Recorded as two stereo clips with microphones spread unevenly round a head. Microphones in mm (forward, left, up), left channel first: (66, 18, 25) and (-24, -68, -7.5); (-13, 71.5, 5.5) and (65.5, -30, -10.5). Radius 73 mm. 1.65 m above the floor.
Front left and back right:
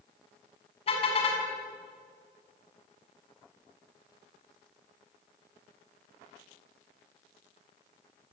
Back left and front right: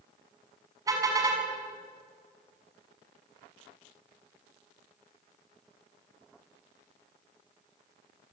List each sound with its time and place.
0.9 s a car horn: 10° left, 6 m